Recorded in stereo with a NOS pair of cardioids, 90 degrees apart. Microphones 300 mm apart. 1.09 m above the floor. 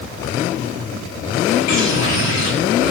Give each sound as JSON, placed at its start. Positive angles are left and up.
{"t": 1.7, "sound": "a bird", "azimuth_deg": 65, "distance_m": 10.0}